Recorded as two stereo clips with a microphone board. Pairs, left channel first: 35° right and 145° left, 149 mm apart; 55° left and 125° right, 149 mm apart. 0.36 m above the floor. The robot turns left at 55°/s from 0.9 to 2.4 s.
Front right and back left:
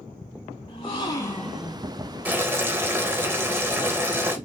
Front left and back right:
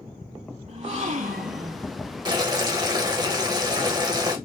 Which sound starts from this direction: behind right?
Boiling, at 2.2 s.